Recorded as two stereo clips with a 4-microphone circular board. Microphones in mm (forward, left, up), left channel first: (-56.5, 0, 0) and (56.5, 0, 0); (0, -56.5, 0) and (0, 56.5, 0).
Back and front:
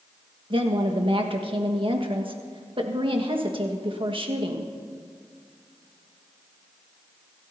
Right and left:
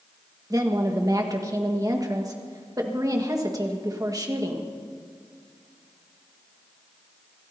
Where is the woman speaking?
35° left, 1.5 m.